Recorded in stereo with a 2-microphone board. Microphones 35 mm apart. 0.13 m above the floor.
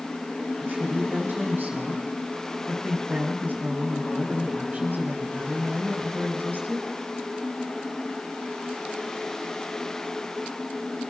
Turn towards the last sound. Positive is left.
turn(degrees=-60)  # may be behind; listen again after turning